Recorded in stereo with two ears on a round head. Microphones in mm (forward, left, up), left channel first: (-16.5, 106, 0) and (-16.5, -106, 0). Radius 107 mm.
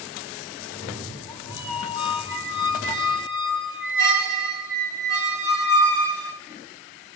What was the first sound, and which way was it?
A cat meowing, 20° left (ahead or behind).